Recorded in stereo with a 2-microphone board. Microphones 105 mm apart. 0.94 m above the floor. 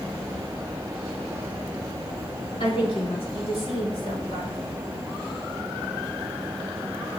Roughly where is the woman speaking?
Left.